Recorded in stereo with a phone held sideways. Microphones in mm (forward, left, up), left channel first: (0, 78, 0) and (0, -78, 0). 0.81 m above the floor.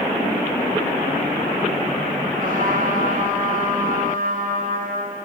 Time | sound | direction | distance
2.4 | a trumpet | 65° right (ahead or behind) | 4.5 m